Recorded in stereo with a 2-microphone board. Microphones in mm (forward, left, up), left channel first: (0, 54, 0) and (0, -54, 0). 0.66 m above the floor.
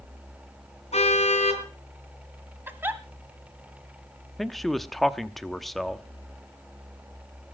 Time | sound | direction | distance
0.9 | a car horn | 85° left | 3.5 m
2.7 | a giggle | 20° right (ahead or behind) | 1.2 m
4.4 | a man speaking | centre (ahead or behind) | 0.8 m